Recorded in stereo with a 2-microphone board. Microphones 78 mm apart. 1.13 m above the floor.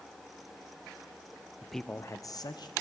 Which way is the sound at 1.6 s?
10° right (ahead or behind).